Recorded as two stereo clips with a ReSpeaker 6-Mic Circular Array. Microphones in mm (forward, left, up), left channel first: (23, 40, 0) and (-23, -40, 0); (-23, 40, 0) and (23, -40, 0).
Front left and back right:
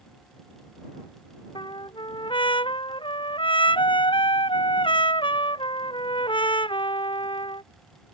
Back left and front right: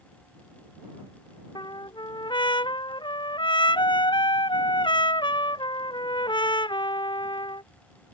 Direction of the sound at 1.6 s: 85° left.